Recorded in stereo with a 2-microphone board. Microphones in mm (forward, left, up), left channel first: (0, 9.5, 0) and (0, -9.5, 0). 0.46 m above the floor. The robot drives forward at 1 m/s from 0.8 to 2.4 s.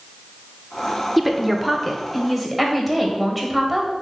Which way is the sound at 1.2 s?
5° left (ahead or behind).